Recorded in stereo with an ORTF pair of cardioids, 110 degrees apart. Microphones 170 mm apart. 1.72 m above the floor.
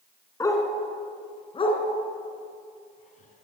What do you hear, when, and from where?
0.4 s a dog barking: 20° left, 5 m; by 3.4 s 50° left, 6 m